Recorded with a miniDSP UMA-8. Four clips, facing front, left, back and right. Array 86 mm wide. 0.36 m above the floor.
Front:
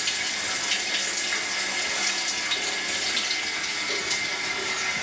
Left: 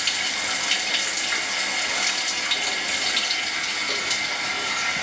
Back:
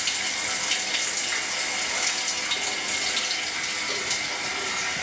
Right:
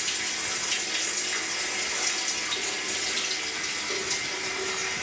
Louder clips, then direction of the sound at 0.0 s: Left 6 dB, even; 100° left.